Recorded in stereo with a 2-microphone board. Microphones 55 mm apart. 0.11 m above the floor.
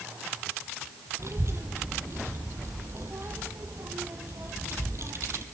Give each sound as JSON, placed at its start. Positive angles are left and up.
{"t": 1.2, "sound": "a child speaking", "side_deg": -55, "distance_m": 1.7}